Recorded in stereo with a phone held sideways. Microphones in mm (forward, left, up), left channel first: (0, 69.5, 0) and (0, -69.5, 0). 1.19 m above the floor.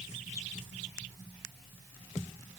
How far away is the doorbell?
I don't hear a doorbell.